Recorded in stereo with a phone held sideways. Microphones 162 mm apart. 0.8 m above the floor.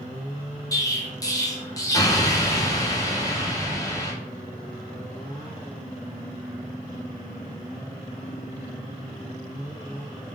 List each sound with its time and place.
0.7 s an explosion: 25° left (ahead or behind), 0.5 m